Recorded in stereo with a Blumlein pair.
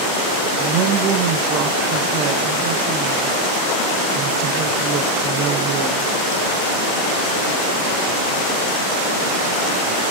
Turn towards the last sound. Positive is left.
turn(degrees=-35)